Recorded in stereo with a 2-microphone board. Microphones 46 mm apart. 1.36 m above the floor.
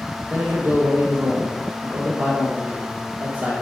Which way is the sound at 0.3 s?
50° right (ahead or behind).